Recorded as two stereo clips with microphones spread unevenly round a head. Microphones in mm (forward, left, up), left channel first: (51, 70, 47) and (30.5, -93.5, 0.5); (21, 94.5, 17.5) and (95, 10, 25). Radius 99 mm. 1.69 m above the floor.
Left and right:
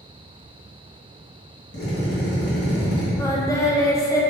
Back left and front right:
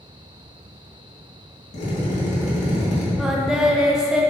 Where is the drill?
120° left, 2.5 m.